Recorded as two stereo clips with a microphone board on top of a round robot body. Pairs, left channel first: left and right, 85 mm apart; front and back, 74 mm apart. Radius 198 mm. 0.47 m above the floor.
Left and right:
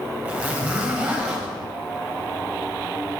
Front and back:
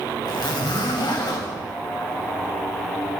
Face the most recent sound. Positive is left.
turn(degrees=-15)